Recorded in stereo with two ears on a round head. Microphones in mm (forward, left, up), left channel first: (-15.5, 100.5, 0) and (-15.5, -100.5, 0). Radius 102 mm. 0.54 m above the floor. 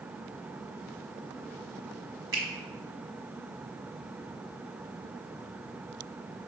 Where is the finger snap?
20° right (ahead or behind), 1.1 m.